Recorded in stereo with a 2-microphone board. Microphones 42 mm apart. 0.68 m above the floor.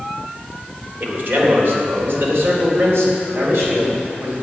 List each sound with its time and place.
1.0 s a man speaking: 60° right (ahead or behind), 2.5 m; by 4.3 s 75° right (ahead or behind), 4.5 m